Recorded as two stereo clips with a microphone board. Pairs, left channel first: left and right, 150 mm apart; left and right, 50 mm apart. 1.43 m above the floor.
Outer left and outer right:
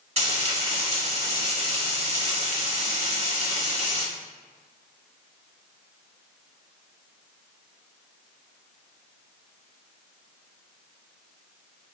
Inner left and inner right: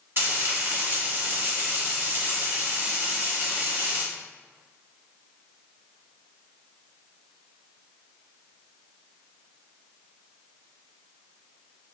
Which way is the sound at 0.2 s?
45° right (ahead or behind).